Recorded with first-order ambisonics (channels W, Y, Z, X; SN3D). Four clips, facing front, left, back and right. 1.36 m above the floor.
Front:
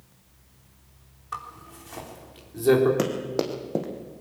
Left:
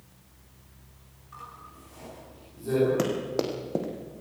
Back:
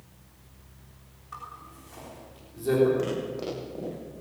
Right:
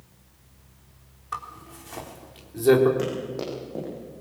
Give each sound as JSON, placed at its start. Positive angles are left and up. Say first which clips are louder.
{"t": 1.3, "sound": "a zipper", "louder": "right 9 dB, front 5 dB", "azimuth_deg": -60, "distance_m": 3.5}
{"t": 3.0, "sound": "running footsteps", "louder": "left 1 dB, front 4 dB", "azimuth_deg": 30, "distance_m": 3.5}